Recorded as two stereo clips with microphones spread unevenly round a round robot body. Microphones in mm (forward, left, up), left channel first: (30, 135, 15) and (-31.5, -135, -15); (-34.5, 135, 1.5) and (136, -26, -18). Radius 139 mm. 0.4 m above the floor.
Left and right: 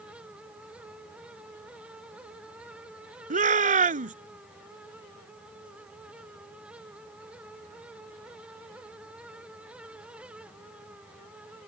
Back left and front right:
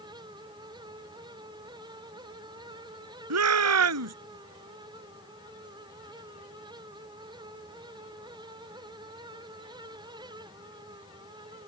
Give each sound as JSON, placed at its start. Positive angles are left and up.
{"t": 3.3, "sound": "a shout", "azimuth_deg": -40}